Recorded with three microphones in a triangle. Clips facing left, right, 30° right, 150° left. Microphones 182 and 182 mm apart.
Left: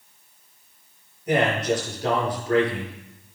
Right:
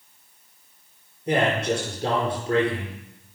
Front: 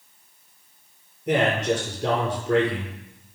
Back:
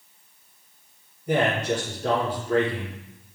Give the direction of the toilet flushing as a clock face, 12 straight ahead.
I don't hear a toilet flushing.